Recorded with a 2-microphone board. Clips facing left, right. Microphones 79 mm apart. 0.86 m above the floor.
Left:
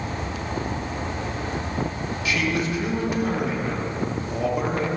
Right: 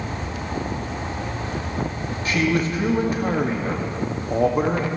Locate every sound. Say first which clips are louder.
2.2 s a man speaking: right 4 dB; 40° right (ahead or behind), 1.6 m